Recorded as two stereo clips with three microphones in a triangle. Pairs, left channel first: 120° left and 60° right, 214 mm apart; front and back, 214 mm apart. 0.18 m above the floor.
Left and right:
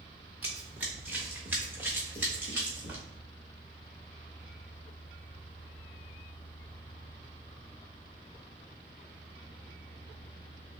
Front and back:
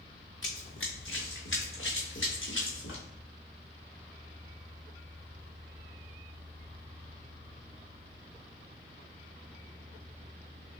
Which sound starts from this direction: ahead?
Running footsteps, at 0.4 s.